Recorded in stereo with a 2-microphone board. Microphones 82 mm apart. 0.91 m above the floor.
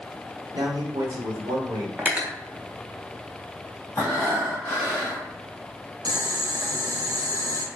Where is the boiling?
50° right (ahead or behind), 0.6 m.